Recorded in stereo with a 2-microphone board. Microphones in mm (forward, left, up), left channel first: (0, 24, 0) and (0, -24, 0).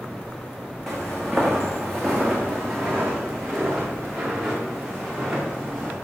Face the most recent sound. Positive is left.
turn(degrees=-5)  # may be behind; listen again after turning